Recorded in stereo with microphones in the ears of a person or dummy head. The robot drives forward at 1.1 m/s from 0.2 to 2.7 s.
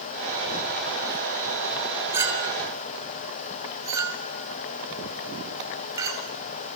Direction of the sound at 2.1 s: 15° right (ahead or behind).